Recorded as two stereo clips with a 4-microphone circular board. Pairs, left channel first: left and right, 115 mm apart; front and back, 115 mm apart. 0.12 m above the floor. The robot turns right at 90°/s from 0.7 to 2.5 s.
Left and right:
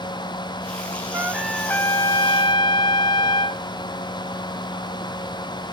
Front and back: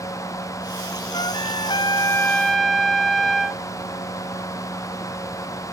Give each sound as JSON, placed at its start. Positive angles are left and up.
{"t": 1.1, "sound": "a trumpet", "azimuth_deg": -35, "distance_m": 0.9}